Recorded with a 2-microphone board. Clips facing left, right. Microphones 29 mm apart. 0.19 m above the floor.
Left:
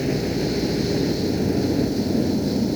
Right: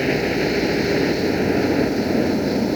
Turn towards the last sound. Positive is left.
turn(degrees=-45)  # may be behind; listen again after turning